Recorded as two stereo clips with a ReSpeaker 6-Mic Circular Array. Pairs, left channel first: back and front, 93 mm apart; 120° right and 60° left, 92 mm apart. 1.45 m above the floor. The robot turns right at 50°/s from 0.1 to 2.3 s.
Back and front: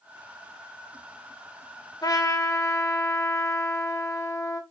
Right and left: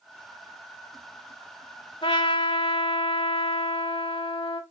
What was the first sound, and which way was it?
A trumpet, 140° right.